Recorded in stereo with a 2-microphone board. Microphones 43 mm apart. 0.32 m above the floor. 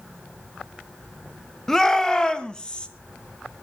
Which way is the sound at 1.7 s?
10° left (ahead or behind).